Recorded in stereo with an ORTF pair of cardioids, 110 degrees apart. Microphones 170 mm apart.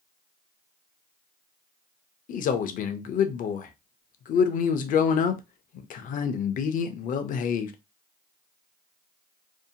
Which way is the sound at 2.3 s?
55° left.